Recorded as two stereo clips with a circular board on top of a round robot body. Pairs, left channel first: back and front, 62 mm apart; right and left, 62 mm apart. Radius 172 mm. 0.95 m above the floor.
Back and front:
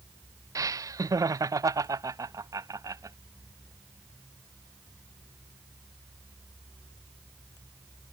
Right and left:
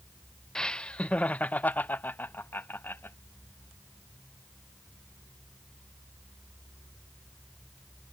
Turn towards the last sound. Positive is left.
turn(degrees=-35)